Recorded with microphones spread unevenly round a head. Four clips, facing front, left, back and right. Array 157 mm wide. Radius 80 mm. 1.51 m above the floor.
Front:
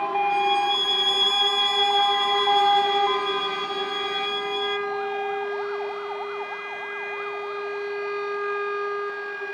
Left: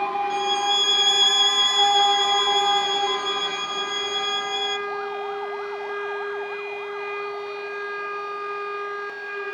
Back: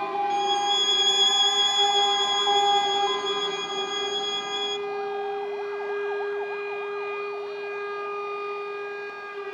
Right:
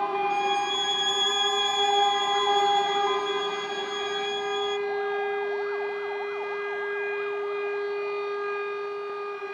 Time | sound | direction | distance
0.3 | a violin | 100° left | ?